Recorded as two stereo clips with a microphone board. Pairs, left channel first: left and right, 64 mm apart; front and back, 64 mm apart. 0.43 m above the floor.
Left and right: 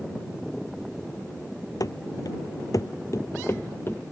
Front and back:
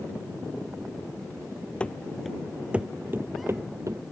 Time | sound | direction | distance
1.8 | running footsteps | 70° left | ?